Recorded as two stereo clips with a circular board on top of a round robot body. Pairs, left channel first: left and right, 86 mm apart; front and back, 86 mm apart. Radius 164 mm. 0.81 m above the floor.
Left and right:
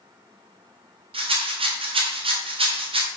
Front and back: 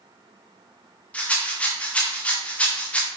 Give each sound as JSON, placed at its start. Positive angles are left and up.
{"t": 1.1, "sound": "a rattle", "azimuth_deg": -75, "distance_m": 1.4}